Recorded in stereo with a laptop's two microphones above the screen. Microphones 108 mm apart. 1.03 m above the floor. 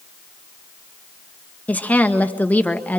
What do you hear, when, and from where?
1.7 s a woman speaking: 15° left (ahead or behind), 1.3 m